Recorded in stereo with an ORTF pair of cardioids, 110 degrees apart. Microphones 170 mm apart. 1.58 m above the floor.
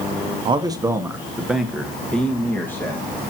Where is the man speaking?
30° right, 1.0 m; by 3.1 s 15° left, 2 m.